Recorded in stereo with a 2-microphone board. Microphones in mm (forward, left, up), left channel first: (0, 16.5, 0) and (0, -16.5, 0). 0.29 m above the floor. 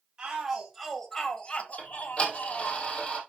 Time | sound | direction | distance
0.2 | a shout | 25° right (ahead or behind) | 1.7 m
1.8 | ticking | 35° left (ahead or behind) | 2.5 m